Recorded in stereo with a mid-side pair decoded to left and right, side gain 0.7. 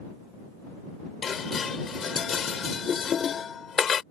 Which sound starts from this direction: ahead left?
Dishes clattering, at 1.2 s.